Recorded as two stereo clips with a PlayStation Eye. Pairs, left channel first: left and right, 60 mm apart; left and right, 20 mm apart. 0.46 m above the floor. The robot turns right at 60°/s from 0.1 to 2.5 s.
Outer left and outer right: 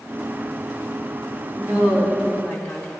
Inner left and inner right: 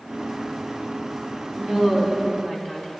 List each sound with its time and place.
1.6 s a woman speaking: 35° right, 3.5 m; by 2.9 s 25° left, 3.5 m